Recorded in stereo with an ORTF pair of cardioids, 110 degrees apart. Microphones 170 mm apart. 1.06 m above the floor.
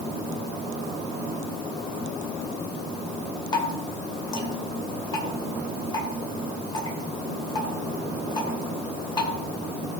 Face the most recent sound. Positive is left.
turn(degrees=25)